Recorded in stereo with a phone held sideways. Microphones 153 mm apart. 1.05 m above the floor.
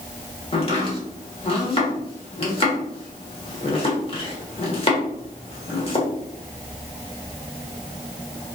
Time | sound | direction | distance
0.5 | chopping | 40° left (ahead or behind) | 1.3 m